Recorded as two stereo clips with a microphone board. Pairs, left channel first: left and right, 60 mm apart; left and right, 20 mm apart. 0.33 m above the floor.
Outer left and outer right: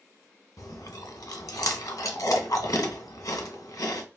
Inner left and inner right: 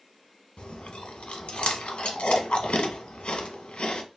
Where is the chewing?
75° left (ahead or behind), 0.6 m.